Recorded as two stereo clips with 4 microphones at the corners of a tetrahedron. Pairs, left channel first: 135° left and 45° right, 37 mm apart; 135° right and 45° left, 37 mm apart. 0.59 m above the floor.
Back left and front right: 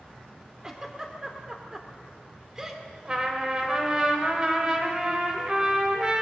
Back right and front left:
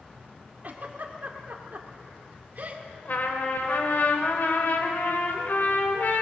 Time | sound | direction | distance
0.6 | a giggle | 25° left | 2 m
3.0 | a trumpet | 110° right | 2.5 m